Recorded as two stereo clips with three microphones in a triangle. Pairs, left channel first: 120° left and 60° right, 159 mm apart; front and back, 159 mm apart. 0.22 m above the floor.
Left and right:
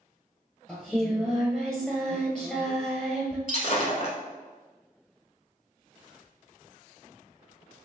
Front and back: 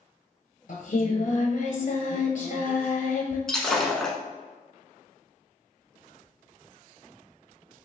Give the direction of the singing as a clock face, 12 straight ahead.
11 o'clock.